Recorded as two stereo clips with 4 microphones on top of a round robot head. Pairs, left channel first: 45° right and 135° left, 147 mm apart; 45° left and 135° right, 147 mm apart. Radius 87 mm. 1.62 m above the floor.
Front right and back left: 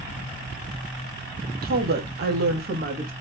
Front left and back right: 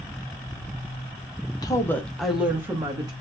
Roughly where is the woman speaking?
Left.